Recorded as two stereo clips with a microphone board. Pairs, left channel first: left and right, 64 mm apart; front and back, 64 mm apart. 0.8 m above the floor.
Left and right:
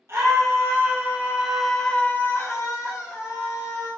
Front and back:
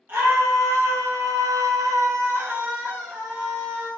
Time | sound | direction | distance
0.1 | a scream | 130° right | 1.7 m